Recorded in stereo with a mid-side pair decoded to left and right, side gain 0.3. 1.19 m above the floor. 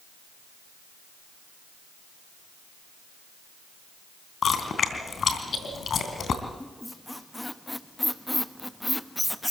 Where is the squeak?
15° left, 1.1 m.